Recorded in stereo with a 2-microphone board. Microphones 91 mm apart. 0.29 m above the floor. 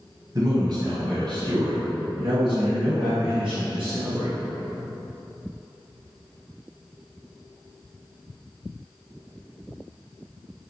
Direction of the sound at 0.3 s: 45° right (ahead or behind).